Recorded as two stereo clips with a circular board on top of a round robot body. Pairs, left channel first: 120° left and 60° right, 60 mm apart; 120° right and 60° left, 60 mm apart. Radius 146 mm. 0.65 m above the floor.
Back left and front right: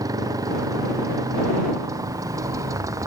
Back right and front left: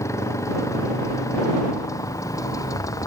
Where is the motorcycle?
80° right; by 3.1 s 95° right.